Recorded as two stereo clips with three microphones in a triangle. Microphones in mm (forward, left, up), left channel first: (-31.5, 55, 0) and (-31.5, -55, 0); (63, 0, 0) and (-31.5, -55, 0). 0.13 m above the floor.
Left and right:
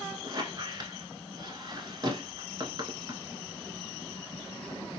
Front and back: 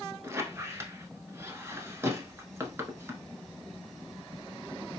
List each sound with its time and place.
0.2 s a squeak: 100° right, 0.8 m